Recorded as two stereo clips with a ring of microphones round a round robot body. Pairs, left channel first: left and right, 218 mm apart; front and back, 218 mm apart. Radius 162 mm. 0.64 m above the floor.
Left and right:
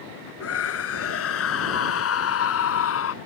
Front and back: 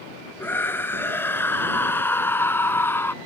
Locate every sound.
0.4 s a scream: 80° left